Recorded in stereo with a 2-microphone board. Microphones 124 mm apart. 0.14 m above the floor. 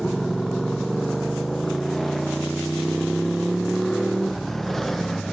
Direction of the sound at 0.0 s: Centre (ahead or behind).